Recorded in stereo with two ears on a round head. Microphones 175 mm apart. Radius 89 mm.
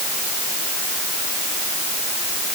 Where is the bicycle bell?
I don't hear a bicycle bell.